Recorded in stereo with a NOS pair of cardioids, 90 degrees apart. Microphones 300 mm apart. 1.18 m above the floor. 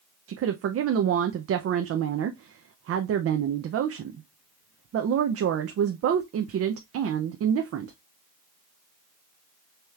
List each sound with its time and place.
0.3 s a woman speaking: 50° right, 0.6 m